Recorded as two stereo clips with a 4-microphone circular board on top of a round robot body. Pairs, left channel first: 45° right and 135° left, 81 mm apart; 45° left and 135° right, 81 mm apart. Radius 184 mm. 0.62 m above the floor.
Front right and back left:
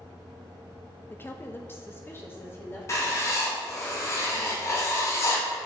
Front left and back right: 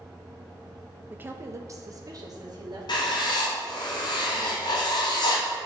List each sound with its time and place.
1.1 s a woman speaking: 85° right, 0.8 m; by 3.9 s 110° right, 2.5 m
2.9 s writing: 15° left, 0.8 m